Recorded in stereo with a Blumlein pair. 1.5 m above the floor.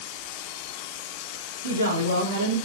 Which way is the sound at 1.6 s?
70° right.